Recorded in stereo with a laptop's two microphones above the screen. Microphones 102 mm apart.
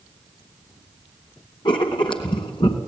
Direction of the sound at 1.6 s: 55° left (ahead or behind).